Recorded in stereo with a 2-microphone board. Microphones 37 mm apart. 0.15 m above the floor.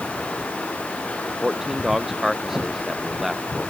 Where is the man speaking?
10° right (ahead or behind).